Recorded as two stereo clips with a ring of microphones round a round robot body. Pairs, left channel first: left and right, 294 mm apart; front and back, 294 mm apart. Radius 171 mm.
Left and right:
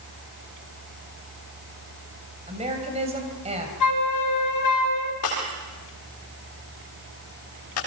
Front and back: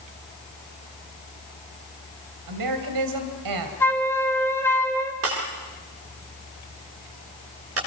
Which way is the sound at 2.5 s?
160° right.